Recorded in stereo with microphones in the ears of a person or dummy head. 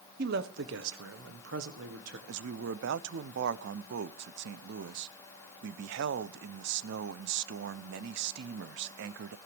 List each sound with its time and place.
0.2 s a man speaking: 60° right (ahead or behind), 1.2 m; by 2.2 s 75° right (ahead or behind), 1.7 m
2.3 s a man speaking: 75° right (ahead or behind), 0.6 m